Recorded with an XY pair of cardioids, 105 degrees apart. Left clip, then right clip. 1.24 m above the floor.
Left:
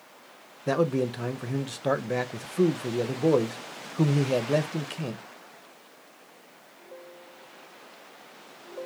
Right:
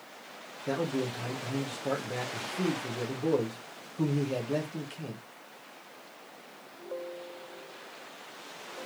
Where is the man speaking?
55° left, 0.9 m.